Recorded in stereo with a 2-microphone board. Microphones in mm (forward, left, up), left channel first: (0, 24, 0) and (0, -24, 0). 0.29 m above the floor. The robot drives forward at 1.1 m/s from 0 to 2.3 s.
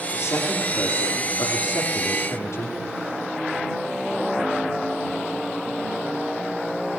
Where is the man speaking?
75° left (ahead or behind), 8.5 m; by 2.8 s 85° left, 8 m.